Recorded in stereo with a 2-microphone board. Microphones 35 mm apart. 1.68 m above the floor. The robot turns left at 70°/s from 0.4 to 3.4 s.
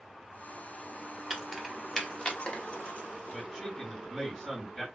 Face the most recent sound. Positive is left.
turn(degrees=20)  # may be behind; listen again after turning